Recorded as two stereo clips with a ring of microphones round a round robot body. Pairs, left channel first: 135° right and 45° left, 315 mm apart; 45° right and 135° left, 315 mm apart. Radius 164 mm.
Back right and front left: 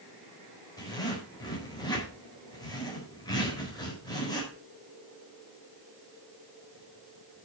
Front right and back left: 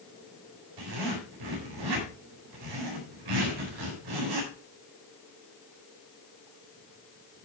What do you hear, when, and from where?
0.8 s a zipper: 145° left, 4 m